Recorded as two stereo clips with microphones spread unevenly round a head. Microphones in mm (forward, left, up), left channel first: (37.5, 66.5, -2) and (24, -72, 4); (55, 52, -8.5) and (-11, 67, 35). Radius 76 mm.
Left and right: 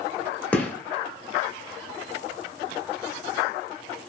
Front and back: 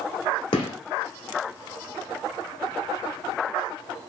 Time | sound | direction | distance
0.5 | a gunshot | 5° left | 1.2 m